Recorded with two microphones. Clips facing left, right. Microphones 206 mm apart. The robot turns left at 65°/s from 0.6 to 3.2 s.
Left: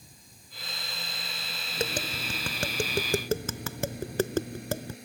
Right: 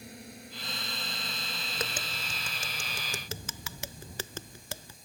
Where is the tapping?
25° left (ahead or behind); by 5.0 s 55° left (ahead or behind).